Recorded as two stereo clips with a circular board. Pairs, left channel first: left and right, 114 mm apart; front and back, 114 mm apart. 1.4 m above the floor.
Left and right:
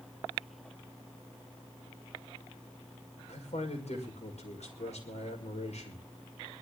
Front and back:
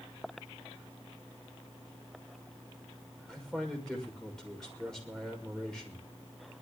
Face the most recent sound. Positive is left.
turn(degrees=85)